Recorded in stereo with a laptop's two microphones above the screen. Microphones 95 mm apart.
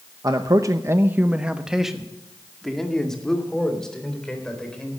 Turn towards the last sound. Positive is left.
turn(degrees=10)  # may be behind; listen again after turning